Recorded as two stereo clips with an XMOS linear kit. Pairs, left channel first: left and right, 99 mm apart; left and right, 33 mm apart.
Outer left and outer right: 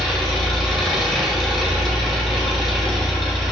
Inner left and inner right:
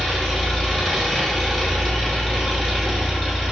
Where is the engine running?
5° left (ahead or behind), 1.8 m.